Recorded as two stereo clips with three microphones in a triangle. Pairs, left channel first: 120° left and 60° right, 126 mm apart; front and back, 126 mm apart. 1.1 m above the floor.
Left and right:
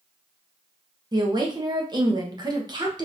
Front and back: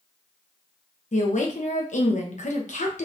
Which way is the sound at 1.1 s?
5° right.